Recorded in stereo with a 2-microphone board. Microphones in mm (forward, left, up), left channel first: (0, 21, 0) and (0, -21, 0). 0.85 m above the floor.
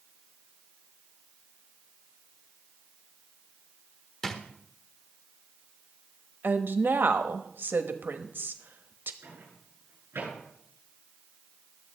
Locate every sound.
4.2 s a drawer: 15° left (ahead or behind), 1.3 m
6.4 s a woman speaking: 55° right (ahead or behind), 1.1 m
9.2 s a microwave: 70° right (ahead or behind), 9 m